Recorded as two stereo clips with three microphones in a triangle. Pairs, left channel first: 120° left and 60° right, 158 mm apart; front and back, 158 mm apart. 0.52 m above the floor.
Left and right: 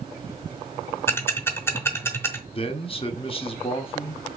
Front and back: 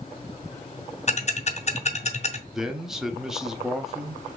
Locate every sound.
1.1 s ticking: 45° left, 0.7 m
2.5 s a man speaking: 95° left, 0.8 m